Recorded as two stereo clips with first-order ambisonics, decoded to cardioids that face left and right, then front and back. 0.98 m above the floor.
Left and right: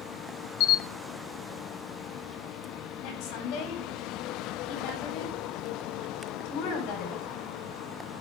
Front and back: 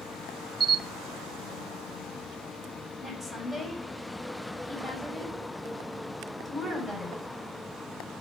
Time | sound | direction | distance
0.6 | a camera shutter | 100° left | 1.1 m
3.0 | a woman speaking | 85° left | 7 m